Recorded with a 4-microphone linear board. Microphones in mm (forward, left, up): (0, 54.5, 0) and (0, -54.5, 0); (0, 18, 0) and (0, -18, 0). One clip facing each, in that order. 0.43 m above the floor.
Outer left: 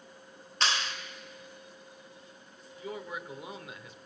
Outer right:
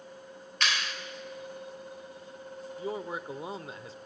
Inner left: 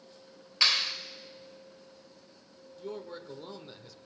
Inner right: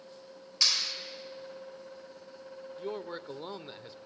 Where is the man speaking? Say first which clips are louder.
Outer right 4 dB, inner right 2 dB; 35° right (ahead or behind), 1.1 m.